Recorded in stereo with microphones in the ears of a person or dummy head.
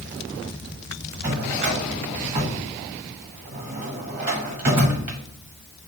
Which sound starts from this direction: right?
A drawer, at 1.2 s.